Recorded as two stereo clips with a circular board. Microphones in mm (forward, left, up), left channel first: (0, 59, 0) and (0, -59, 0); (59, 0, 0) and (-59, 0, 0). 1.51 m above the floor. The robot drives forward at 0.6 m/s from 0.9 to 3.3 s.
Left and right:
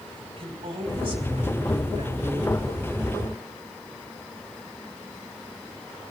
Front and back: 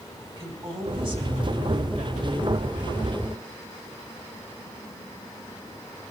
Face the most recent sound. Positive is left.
turn(degrees=-145)